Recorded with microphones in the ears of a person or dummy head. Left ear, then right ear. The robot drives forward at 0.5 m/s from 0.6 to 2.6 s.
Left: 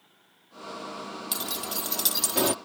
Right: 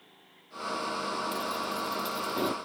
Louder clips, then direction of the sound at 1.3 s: Right 1 dB; 35° left (ahead or behind).